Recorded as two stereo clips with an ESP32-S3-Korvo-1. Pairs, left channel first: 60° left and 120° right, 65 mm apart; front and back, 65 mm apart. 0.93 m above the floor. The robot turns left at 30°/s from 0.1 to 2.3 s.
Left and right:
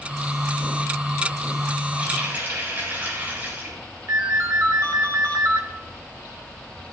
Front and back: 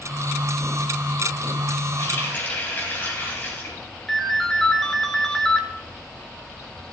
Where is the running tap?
50° right, 3.5 m; by 3.8 s 60° right, 3.5 m.